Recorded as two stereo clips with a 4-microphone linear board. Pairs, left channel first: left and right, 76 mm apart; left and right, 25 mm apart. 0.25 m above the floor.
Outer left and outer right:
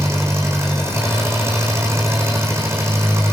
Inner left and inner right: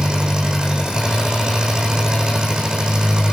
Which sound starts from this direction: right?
An engine running, at 0.0 s.